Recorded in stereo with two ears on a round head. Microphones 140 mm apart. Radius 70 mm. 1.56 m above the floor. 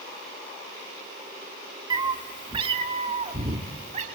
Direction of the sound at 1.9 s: 25° right (ahead or behind).